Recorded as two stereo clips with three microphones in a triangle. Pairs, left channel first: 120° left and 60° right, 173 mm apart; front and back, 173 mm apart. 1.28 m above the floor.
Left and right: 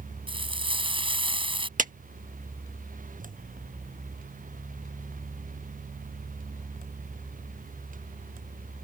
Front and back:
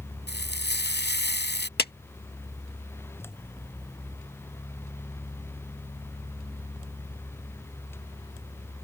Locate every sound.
0.3 s frying: straight ahead
1.8 s a clap: 20° right